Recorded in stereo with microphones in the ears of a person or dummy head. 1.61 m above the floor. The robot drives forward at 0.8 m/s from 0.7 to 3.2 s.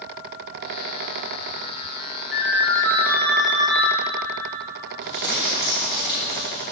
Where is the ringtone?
5° right (ahead or behind), 1.8 m.